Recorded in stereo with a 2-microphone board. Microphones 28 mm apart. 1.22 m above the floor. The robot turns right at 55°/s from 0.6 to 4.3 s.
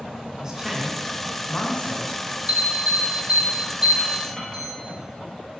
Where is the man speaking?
25° right, 2 m; by 2.2 s 65° left, 2 m.